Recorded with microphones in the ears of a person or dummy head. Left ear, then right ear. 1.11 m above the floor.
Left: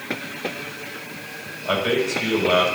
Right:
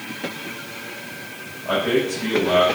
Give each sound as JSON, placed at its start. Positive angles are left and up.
{"t": 1.6, "sound": "a man speaking", "side_deg": 80, "distance_m": 5.0}